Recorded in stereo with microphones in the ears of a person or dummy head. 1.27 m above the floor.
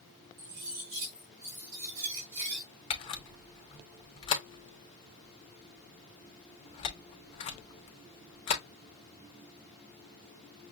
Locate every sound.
0.4 s cutlery clinking: 70° right (ahead or behind), 2.5 m
2.9 s a camera shutter: 30° left (ahead or behind), 0.7 m